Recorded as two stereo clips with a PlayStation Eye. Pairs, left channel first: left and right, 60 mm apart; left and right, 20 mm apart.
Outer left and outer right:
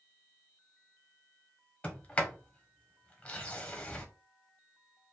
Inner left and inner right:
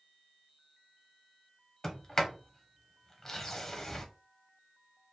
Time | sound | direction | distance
1.8 | a sliding door | 20° left (ahead or behind) | 0.8 m